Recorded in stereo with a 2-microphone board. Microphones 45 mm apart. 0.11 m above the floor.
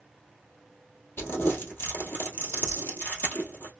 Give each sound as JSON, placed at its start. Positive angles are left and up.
{"t": 1.2, "sound": "crumpling", "side_deg": 50, "distance_m": 1.6}